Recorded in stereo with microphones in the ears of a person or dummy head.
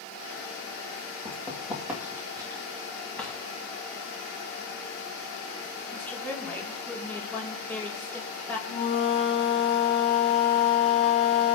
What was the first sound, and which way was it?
Running footsteps, 15° left (ahead or behind).